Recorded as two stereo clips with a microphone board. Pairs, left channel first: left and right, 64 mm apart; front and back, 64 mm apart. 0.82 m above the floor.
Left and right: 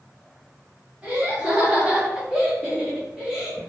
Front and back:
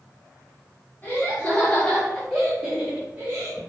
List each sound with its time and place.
1.0 s laughter: 30° right, 1.3 m; by 3.6 s 175° right, 1.2 m